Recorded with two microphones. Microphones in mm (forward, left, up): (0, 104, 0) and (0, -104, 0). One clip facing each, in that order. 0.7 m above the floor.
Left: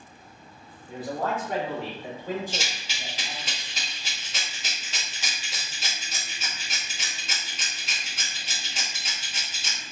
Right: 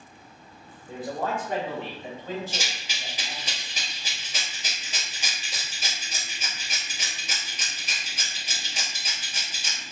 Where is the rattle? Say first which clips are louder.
Left 1 dB; 15° right (ahead or behind), 1.7 m.